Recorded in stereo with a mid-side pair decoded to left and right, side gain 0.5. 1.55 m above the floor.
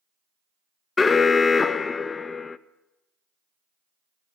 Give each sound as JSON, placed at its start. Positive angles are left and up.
{"t": 1.0, "sound": "an alarm", "azimuth_deg": 30, "distance_m": 0.7}